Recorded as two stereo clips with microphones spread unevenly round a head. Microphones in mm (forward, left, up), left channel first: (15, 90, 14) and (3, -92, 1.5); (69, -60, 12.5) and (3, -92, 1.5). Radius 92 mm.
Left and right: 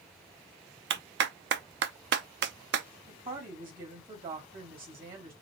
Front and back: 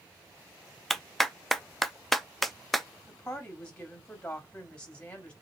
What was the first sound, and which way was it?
A clap, 60° right.